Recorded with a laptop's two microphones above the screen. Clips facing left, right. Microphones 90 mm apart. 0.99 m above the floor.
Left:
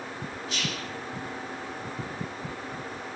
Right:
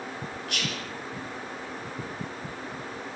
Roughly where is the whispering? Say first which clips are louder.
Even; right.